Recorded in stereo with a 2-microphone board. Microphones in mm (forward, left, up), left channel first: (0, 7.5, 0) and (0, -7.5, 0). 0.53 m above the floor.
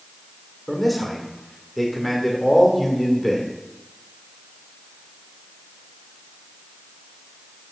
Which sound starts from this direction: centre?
A man speaking, at 0.7 s.